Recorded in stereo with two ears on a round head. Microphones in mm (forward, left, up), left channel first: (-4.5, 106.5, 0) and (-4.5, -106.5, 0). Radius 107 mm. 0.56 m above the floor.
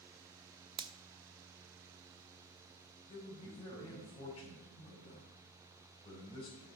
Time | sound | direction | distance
0.8 | a finger snap | 20° right (ahead or behind) | 0.5 m
3.1 | a man speaking | 20° left (ahead or behind) | 4.5 m